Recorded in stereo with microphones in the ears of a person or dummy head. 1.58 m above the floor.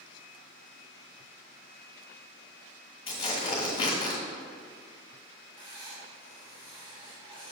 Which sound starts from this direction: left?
Tearing paper, at 3.1 s.